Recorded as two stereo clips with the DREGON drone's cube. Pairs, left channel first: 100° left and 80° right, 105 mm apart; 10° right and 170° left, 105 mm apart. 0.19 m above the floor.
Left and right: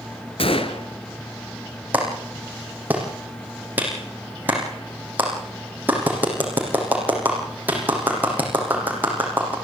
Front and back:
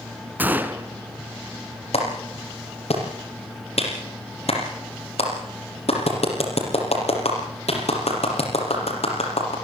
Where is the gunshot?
100° left, 1.4 m.